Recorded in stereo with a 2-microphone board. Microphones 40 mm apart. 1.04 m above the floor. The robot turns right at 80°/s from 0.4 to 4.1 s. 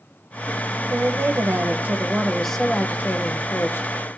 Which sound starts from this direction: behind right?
A woman speaking, at 0.9 s.